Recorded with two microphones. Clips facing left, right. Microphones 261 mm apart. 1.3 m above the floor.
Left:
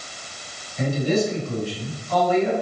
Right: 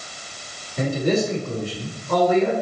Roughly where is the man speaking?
Right.